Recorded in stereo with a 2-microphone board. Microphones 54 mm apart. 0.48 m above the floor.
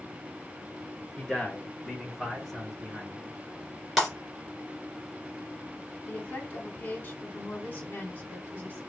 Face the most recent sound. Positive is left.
turn(degrees=40)  # may be behind; listen again after turning